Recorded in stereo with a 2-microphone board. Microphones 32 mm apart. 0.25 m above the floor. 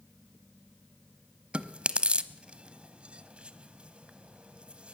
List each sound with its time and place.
1.5 s chewing: 35° right (ahead or behind), 1.0 m